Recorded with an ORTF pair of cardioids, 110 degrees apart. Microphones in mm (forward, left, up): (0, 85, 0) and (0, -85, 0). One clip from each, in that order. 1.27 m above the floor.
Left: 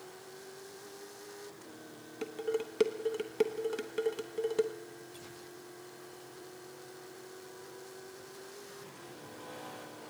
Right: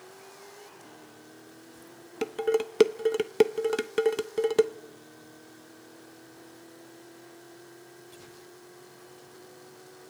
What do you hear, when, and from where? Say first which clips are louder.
2.2 s dishes clattering: right 8 dB; 50° right, 0.9 m